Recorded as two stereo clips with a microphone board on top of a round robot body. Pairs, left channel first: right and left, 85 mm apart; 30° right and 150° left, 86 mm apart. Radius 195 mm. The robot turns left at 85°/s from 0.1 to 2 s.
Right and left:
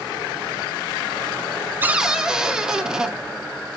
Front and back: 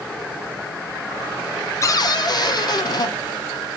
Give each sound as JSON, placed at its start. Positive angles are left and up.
{"t": 1.8, "sound": "a cupboard door", "azimuth_deg": 25, "distance_m": 0.8}